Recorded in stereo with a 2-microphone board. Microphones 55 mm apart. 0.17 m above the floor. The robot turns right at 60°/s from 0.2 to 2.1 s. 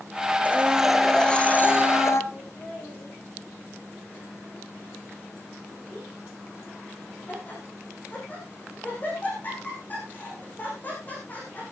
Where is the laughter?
35° left (ahead or behind), 7.5 m.